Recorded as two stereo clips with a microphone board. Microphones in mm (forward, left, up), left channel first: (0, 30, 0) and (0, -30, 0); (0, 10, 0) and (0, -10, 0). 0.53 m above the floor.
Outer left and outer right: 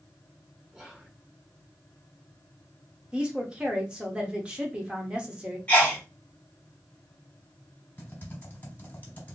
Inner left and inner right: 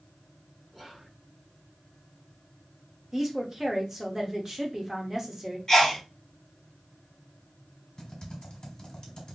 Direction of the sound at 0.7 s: 10° right (ahead or behind).